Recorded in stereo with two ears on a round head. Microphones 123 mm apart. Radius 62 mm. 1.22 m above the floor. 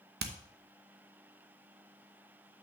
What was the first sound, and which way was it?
Hammering, 85° right.